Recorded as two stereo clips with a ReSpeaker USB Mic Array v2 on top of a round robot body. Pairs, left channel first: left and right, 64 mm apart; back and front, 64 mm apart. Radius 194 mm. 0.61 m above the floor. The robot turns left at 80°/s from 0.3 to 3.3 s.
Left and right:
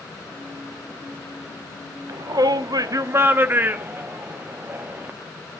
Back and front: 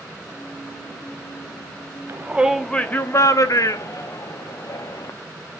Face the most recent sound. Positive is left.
turn(degrees=-150)